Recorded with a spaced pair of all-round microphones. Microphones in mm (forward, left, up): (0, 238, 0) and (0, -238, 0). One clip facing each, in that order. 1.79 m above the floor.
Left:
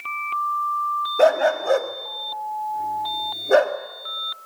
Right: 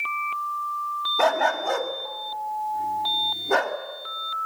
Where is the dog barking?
15° right (ahead or behind), 1.6 m.